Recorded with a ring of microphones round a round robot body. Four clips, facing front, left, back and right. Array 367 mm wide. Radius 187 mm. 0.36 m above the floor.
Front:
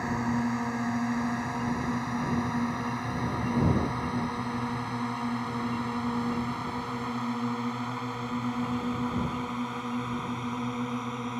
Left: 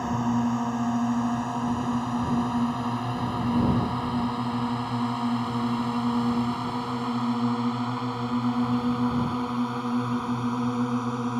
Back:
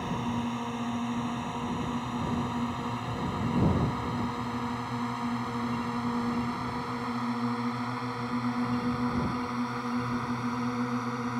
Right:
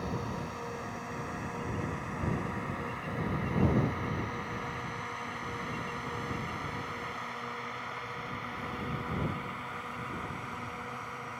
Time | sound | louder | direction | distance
0.0 | a drone | left 12 dB, front 3 dB | 80° left | ?